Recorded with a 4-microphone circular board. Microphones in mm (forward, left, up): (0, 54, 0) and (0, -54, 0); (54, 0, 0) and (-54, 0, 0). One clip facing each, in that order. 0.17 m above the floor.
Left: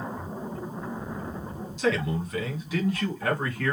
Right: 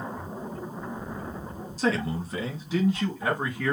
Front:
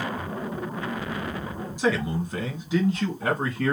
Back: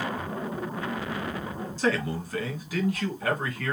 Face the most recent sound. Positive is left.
turn(degrees=-20)